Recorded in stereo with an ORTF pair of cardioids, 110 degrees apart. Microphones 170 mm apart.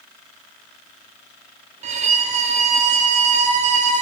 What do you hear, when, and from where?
1.8 s a violin: 45° right, 0.5 m